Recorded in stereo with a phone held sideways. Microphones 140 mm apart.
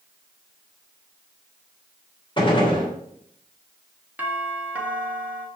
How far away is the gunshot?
About 3 m.